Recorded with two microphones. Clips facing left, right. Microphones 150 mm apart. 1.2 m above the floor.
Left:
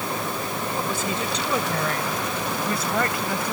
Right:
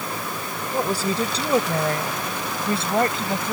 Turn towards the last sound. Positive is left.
turn(degrees=-25)  # may be behind; listen again after turning